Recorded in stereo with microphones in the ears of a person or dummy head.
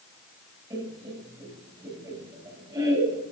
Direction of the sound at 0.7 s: 20° right (ahead or behind).